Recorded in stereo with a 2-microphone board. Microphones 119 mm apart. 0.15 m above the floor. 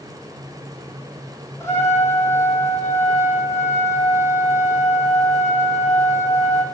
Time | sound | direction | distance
1.6 | a trumpet | 20° left (ahead or behind) | 1.1 m